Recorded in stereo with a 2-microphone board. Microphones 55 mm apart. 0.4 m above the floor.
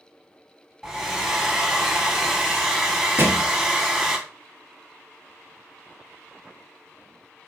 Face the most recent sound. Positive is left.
turn(degrees=-40)  # may be behind; listen again after turning